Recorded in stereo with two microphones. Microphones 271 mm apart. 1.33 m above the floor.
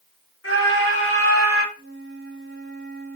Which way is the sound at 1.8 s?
45° left (ahead or behind).